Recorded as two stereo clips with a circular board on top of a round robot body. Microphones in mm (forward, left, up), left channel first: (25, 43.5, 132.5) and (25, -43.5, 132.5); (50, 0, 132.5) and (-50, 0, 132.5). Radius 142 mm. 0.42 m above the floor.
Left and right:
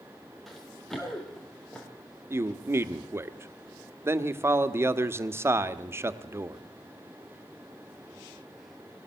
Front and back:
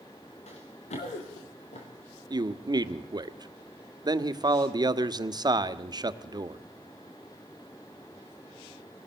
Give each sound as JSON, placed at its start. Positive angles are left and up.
{"t": 0.5, "sound": "running footsteps", "azimuth_deg": 0, "distance_m": 4.5}
{"t": 2.3, "sound": "a man speaking", "azimuth_deg": -145, "distance_m": 1.3}